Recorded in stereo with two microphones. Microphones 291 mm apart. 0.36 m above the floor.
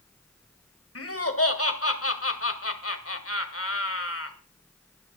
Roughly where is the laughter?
Left.